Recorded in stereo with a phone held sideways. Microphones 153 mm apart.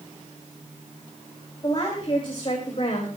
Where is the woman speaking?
30° left (ahead or behind), 5.5 m; by 3.1 s 45° left (ahead or behind), 4.5 m.